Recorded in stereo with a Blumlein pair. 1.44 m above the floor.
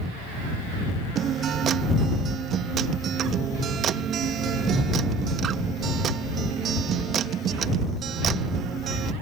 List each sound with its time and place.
1.1 s a guitar: 25° right